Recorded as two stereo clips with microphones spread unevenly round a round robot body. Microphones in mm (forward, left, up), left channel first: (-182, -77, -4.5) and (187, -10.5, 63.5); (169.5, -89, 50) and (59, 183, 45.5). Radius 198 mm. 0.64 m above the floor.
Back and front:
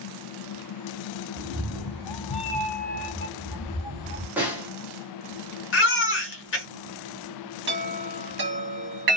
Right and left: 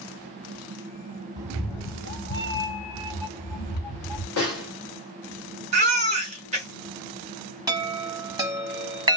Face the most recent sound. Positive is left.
turn(degrees=55)